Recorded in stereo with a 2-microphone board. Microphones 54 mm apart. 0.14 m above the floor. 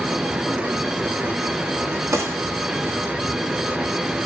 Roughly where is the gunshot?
Right.